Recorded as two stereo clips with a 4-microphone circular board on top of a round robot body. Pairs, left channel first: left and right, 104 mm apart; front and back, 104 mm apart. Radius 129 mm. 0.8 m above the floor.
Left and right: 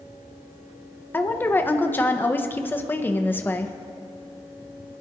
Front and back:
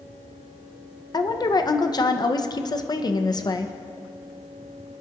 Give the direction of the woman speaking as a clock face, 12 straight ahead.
11 o'clock.